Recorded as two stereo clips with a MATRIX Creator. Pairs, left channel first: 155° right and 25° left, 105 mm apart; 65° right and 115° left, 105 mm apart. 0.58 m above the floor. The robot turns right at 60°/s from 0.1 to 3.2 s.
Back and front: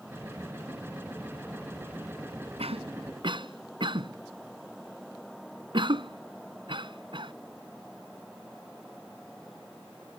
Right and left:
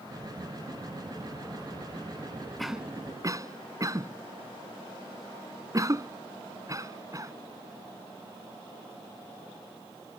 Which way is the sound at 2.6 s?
20° left.